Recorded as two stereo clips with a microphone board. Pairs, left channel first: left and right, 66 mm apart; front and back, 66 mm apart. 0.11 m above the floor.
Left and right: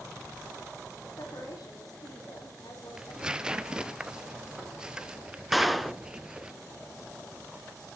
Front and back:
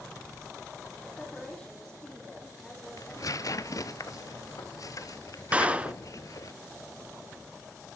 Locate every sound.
1.0 s a woman speaking: 75° left, 5.5 m
3.0 s tearing paper: 15° right, 0.8 m
5.5 s a clap: 175° right, 0.9 m